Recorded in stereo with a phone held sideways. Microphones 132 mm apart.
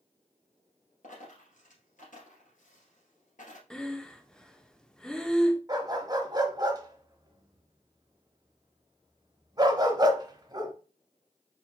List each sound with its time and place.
1.0 s a dropped coin: 70° left (ahead or behind), 2.5 m
3.7 s breathing: 5° left (ahead or behind), 0.5 m
5.7 s a dog barking: 30° right (ahead or behind), 1.0 m